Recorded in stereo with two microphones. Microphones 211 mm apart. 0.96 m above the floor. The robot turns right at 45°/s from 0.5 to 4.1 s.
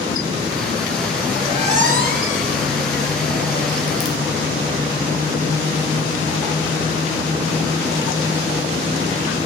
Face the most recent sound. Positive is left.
turn(degrees=-35)  # may be behind; listen again after turning